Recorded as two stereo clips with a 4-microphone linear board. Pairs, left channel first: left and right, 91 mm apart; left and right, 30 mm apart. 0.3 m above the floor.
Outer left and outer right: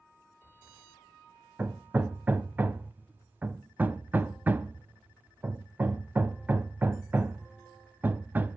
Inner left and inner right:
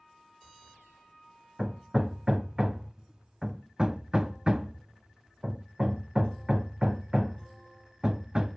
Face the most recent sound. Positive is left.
turn(degrees=-20)  # may be behind; listen again after turning